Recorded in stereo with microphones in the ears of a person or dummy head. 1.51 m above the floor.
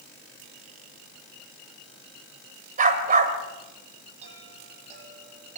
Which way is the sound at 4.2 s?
40° right (ahead or behind).